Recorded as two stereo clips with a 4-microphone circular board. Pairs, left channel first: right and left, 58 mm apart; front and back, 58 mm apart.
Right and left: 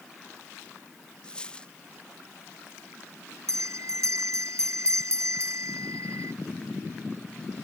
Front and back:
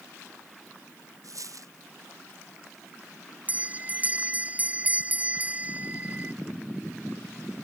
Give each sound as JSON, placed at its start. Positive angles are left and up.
{"t": 1.2, "sound": "a dropped coin", "azimuth_deg": -160}
{"t": 3.5, "sound": "a bell", "azimuth_deg": 120}